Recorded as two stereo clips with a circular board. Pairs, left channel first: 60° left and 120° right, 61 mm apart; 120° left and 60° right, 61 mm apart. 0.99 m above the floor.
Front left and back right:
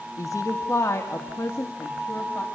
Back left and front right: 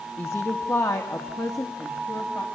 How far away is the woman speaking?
About 1.3 m.